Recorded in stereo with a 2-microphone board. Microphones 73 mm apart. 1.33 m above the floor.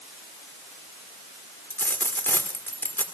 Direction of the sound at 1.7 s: 30° left (ahead or behind).